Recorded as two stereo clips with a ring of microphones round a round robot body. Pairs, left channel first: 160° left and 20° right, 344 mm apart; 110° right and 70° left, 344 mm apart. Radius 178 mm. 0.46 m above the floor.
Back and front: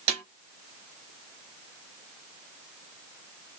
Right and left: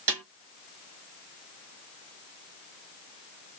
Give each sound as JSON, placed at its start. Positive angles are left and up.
{"t": 0.1, "sound": "a snare drum", "azimuth_deg": 20, "distance_m": 4.0}